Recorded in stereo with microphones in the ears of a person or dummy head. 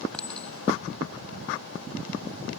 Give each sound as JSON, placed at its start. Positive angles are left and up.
{"t": 0.1, "sound": "a clink", "side_deg": 0}